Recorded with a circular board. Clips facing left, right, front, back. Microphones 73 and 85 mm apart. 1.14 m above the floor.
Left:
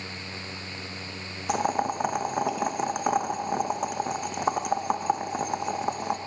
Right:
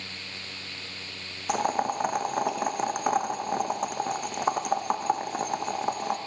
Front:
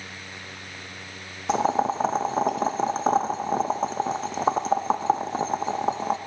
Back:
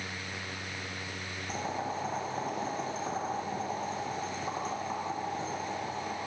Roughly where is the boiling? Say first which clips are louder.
Even, front 13 dB; ahead.